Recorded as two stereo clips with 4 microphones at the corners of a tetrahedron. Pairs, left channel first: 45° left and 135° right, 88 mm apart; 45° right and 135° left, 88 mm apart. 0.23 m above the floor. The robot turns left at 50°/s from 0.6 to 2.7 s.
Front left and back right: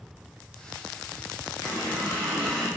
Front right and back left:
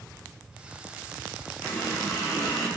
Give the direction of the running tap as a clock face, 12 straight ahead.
12 o'clock.